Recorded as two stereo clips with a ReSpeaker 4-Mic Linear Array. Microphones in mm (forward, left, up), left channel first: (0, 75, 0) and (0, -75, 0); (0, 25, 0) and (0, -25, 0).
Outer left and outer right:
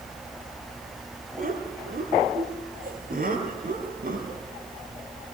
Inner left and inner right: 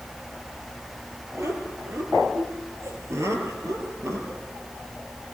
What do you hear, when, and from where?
1.4 s laughter: 70° right (ahead or behind), 5.5 m; by 4.4 s 75° right (ahead or behind), 6.5 m